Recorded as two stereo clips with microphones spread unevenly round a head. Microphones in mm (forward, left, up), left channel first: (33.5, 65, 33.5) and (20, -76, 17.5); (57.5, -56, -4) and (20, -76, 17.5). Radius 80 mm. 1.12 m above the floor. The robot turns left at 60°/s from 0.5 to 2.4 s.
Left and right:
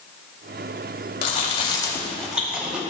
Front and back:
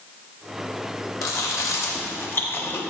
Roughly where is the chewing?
Ahead left.